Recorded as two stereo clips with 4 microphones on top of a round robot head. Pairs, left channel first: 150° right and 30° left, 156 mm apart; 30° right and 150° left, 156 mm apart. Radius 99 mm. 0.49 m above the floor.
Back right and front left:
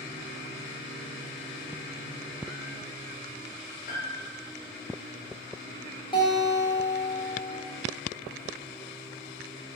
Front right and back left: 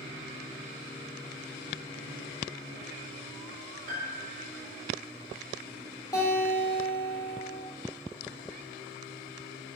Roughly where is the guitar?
Right.